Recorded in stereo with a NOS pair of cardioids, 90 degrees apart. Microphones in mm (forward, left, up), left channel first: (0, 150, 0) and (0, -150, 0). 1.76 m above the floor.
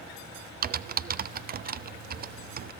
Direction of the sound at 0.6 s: 30° right.